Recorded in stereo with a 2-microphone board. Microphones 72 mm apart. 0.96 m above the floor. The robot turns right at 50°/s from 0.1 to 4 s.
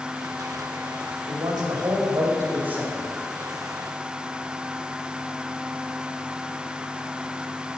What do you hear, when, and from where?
1.3 s a man speaking: 100° right, 1.8 m; by 2.9 s 15° right, 1.8 m